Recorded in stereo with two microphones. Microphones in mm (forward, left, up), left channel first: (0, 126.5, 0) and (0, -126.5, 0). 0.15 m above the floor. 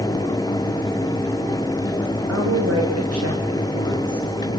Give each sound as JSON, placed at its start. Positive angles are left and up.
{"t": 2.3, "sound": "a woman speaking", "side_deg": -80, "distance_m": 9.5}